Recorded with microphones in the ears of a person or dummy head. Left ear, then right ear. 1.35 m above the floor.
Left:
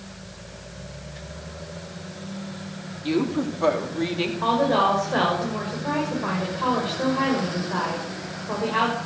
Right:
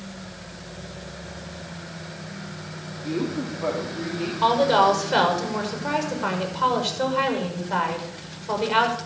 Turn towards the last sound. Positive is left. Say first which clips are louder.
# right 3 dB
turn(degrees=-75)  # may be behind; listen again after turning